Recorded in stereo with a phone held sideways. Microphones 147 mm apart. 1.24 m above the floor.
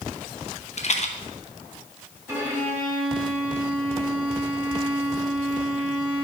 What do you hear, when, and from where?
0.8 s a rattle: 50° left (ahead or behind), 0.6 m
2.3 s a violin: 15° right (ahead or behind), 1.9 m